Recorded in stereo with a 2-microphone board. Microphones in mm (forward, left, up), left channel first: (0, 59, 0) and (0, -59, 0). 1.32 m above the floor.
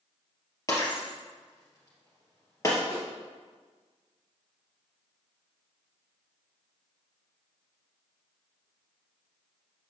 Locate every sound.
0.7 s breaking glass: 25° left (ahead or behind), 2.5 m
2.9 s a snare drum: 50° right (ahead or behind), 4 m